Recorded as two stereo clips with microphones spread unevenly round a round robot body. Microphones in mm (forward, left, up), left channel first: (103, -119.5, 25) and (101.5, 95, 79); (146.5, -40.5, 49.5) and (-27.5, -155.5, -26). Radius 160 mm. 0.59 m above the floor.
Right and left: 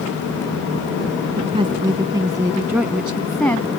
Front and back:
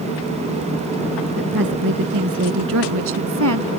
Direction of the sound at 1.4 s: 165° left.